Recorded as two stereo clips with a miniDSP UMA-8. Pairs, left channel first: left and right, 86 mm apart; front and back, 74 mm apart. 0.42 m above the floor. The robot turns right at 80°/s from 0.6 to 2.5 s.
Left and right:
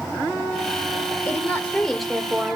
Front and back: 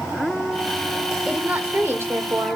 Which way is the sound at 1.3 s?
115° left.